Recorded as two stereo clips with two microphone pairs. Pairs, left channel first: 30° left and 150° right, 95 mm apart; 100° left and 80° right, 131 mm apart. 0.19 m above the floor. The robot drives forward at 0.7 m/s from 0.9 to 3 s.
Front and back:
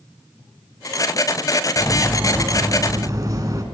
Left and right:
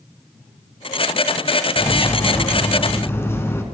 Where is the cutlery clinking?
110° left, 0.7 m; by 3.6 s 170° left, 1.1 m.